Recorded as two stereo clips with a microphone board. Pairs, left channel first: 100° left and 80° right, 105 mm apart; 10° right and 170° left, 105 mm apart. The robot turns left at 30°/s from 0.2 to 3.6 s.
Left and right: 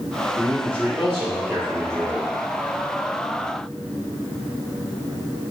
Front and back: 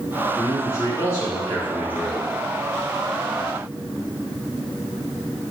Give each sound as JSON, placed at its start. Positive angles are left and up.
{"t": 0.4, "sound": "a man speaking", "azimuth_deg": -20, "distance_m": 1.8}